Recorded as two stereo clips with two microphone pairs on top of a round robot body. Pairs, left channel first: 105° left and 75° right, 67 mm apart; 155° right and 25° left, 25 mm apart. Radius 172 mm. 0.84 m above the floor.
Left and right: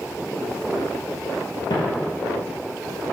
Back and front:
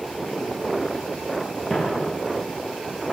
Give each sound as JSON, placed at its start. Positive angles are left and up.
{"t": 1.7, "sound": "footsteps", "azimuth_deg": 115, "distance_m": 1.0}